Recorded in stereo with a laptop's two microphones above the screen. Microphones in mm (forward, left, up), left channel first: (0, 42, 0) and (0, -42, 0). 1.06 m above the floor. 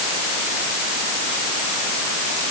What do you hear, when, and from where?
Only background noise.